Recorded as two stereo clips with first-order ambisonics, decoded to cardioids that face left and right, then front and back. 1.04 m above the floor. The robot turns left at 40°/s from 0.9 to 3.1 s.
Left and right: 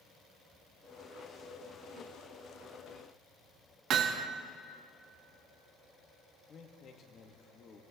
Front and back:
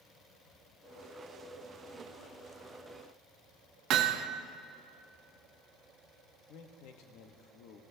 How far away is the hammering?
About 1.0 m.